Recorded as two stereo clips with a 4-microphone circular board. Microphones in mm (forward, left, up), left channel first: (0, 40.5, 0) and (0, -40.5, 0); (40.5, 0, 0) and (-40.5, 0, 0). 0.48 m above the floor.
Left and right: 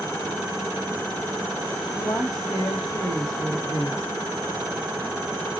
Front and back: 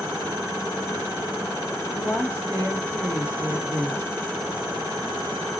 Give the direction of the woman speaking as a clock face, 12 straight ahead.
8 o'clock.